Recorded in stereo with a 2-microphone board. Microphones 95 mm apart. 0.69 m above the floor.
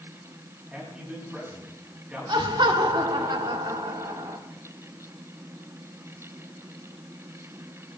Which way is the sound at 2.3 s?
55° right (ahead or behind).